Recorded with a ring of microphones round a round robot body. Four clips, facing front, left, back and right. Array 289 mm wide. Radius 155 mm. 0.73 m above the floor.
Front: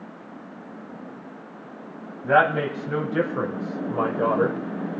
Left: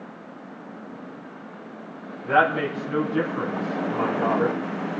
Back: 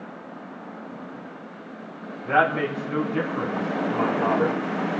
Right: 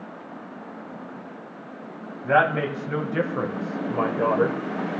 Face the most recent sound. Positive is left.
turn(degrees=-45)